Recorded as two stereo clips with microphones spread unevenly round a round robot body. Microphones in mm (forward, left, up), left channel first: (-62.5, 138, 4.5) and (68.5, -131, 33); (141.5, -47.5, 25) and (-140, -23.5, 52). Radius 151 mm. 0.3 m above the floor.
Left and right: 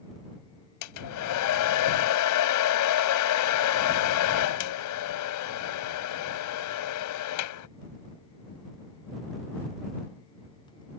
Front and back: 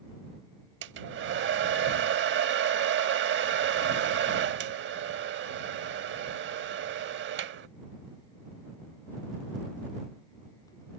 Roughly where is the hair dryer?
Behind left.